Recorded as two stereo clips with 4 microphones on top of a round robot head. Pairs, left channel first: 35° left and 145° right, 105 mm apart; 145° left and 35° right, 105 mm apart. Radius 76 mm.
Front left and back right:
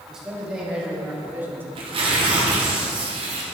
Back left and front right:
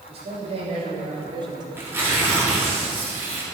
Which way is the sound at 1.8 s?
110° right.